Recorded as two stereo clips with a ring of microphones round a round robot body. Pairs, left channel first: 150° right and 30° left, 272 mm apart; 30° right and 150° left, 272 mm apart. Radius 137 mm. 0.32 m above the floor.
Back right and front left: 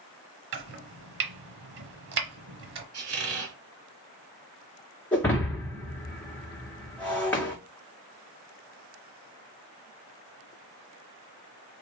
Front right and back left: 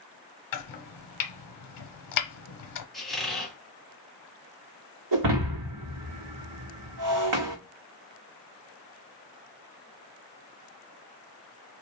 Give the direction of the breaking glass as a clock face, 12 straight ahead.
8 o'clock.